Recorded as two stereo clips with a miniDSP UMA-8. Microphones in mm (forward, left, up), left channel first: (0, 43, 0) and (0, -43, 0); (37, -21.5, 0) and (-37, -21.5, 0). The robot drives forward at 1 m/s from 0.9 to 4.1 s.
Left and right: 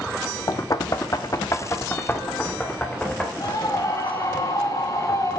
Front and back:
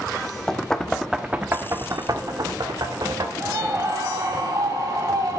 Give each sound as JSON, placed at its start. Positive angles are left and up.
{"t": 0.5, "sound": "knocking", "azimuth_deg": 80, "distance_m": 0.9}
{"t": 3.4, "sound": "a scream", "azimuth_deg": 130, "distance_m": 2.5}